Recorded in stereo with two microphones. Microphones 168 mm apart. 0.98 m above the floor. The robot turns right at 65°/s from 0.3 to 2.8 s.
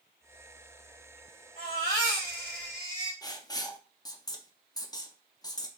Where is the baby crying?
55° left, 2.5 m; by 3.1 s 135° left, 2.5 m.